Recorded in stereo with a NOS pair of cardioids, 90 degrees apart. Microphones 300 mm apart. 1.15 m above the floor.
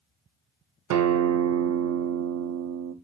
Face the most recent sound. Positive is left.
turn(degrees=-70)